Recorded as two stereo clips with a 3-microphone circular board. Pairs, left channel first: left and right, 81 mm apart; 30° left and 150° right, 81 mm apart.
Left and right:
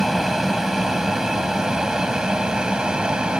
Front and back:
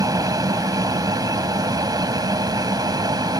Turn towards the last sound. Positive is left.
turn(degrees=-170)